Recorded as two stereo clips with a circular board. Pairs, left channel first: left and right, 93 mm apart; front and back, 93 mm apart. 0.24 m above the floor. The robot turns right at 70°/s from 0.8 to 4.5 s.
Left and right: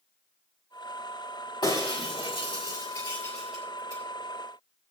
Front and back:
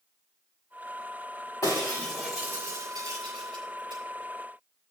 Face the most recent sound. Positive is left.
turn(degrees=-105)